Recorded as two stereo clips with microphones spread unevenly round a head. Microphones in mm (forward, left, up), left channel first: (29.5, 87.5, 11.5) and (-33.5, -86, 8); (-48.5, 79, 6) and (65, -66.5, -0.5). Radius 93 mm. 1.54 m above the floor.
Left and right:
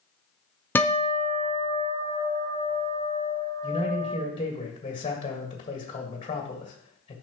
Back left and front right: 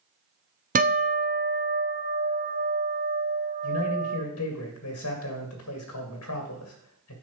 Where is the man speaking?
135° left, 1.7 m.